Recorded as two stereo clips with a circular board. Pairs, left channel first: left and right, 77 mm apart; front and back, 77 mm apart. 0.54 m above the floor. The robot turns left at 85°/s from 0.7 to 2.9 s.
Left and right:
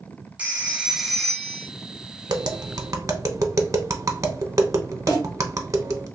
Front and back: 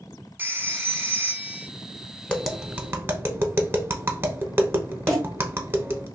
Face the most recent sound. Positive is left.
turn(degrees=80)